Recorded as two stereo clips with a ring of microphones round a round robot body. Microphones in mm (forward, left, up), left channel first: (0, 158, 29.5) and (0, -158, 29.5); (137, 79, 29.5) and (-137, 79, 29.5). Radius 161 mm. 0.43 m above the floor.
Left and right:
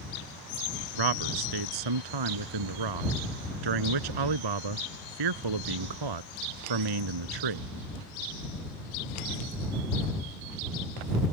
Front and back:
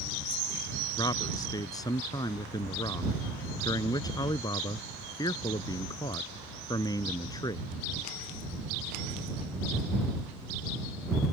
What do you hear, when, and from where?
1.0 s a man speaking: 80° right